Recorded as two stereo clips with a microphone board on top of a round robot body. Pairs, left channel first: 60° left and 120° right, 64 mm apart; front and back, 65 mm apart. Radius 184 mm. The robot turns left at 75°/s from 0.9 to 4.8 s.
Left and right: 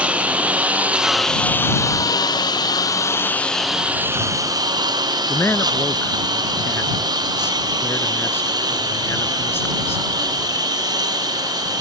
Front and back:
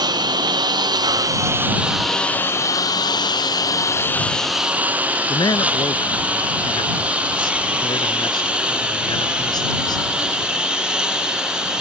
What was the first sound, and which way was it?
A lawn mower, 170° left.